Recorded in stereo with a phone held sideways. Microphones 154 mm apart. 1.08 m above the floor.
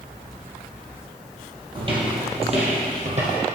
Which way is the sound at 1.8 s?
30° right (ahead or behind).